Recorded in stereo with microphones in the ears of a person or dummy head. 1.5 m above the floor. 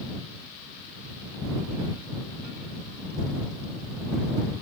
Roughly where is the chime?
No chime in this recording.